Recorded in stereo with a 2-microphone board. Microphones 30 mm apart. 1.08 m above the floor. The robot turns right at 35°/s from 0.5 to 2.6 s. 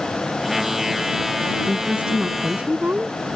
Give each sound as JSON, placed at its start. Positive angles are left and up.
{"t": 1.7, "sound": "a woman speaking", "azimuth_deg": -150}